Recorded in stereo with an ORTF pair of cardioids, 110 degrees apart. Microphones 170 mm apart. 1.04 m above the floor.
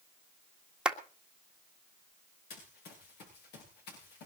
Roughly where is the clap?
Ahead.